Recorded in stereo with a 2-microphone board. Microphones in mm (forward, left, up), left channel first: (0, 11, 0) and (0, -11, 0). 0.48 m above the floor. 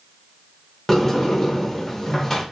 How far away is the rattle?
No rattle in this recording.